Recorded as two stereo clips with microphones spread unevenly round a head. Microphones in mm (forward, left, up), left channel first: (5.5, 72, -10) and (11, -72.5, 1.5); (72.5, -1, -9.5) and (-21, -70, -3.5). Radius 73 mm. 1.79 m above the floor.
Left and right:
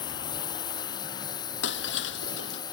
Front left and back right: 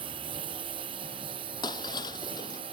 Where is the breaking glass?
100° left.